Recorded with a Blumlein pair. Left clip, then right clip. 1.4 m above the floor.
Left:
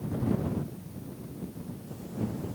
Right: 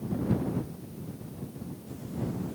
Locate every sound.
Only background noise.